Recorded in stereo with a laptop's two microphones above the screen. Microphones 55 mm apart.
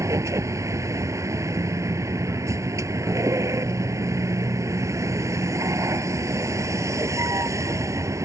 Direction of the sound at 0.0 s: 70° right (ahead or behind).